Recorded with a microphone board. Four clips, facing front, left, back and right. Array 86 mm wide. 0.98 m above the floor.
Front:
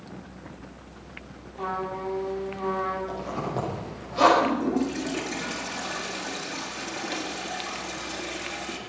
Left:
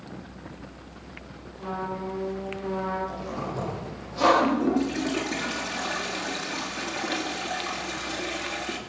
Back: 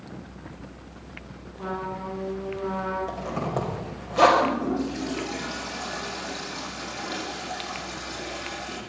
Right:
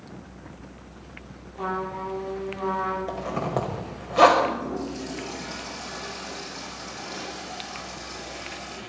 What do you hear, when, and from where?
1.6 s a trumpet: 55° right, 9.5 m
3.1 s a zipper: 110° right, 5.5 m
4.4 s a toilet flushing: 80° left, 4 m